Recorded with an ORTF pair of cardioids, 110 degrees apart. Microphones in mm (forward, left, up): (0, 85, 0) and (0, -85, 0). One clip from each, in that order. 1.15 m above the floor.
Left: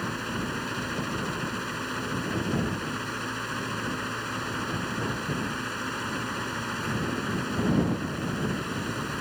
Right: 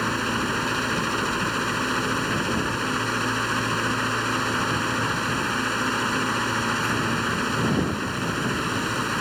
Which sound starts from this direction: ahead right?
A fan, at 0.0 s.